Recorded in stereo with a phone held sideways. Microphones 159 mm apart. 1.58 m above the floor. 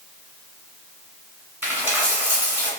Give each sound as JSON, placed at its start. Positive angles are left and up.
{"t": 1.6, "sound": "a dropped coin", "side_deg": -10, "distance_m": 1.6}